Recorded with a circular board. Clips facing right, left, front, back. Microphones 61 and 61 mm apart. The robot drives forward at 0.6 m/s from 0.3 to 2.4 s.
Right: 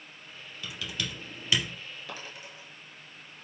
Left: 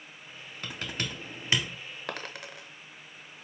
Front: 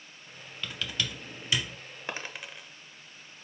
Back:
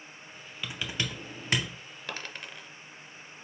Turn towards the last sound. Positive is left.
turn(degrees=85)